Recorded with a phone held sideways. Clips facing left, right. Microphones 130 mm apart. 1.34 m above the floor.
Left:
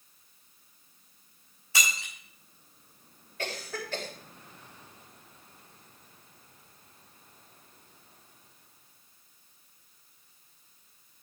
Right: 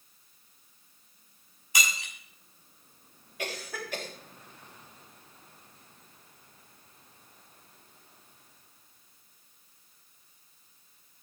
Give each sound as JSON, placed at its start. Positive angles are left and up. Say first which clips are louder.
{"t": 1.7, "sound": "breaking glass", "louder": "even", "side_deg": -15, "distance_m": 5.5}
{"t": 3.4, "sound": "a cough", "louder": "left 1 dB", "side_deg": -10, "distance_m": 3.5}